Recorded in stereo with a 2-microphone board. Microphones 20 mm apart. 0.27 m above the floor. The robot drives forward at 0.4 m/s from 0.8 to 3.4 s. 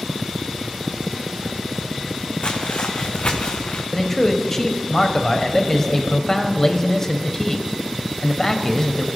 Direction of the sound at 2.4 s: 60° left (ahead or behind).